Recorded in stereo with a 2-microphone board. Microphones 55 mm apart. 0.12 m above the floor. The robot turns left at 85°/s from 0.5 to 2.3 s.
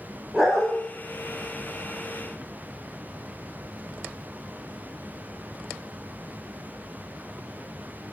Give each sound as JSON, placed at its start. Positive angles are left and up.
{"t": 0.3, "sound": "a dog barking", "side_deg": -5, "distance_m": 3.0}